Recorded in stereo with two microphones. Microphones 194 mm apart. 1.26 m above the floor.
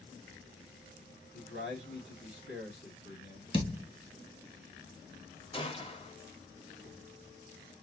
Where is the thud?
25° left (ahead or behind), 3 m.